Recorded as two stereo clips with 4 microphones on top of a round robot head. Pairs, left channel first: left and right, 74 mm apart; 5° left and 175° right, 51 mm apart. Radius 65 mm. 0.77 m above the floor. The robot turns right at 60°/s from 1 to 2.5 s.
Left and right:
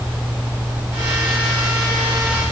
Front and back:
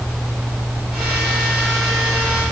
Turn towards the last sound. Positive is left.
No sound to turn to.